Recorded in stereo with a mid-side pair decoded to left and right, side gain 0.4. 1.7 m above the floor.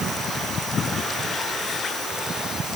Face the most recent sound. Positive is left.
No sound to turn to.